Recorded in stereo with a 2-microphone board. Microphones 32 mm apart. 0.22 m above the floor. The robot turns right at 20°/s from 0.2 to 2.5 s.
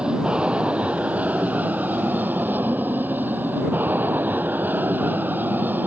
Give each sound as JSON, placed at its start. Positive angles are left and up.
{"t": 0.0, "sound": "an aircraft", "azimuth_deg": -150}